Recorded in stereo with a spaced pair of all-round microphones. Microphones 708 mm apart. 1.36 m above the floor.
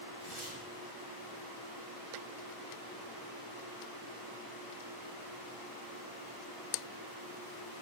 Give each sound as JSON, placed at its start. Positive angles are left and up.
{"t": 0.2, "sound": "tearing paper", "side_deg": 75, "distance_m": 6.5}